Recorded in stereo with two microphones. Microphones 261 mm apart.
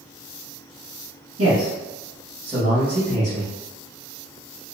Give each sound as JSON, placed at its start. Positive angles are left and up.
{"t": 1.4, "sound": "a man speaking", "side_deg": -55, "distance_m": 1.7}